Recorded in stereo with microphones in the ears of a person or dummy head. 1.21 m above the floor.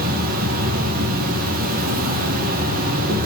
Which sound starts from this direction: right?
An insect, at 0.0 s.